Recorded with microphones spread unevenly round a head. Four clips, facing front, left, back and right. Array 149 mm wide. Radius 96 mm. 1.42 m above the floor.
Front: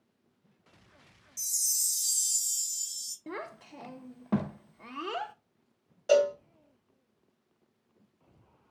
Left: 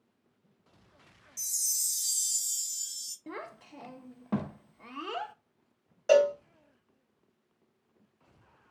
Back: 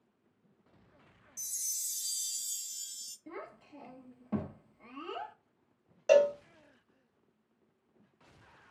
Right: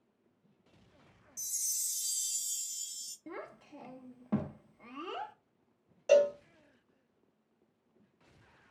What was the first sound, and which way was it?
A chime, 120° left.